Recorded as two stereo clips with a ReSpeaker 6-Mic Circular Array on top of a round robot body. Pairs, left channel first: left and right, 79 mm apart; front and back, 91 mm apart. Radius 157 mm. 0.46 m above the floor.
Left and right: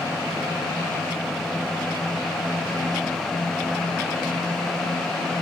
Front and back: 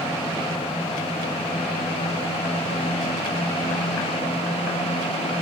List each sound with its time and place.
Only background noise.